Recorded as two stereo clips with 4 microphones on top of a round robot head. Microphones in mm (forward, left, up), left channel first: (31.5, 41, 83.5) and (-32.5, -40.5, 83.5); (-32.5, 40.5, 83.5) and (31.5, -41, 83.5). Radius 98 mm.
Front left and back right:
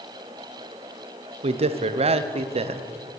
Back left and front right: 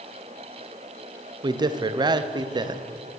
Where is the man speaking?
100° right, 0.8 m.